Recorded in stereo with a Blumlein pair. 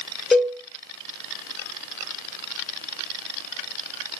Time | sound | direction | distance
0.3 | a cowbell | 10° left | 3.5 m